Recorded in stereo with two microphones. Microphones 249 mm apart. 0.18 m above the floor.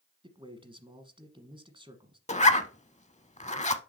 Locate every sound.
0.2 s a man speaking: 20° right (ahead or behind), 1.2 m
2.3 s a zipper: 30° left (ahead or behind), 0.6 m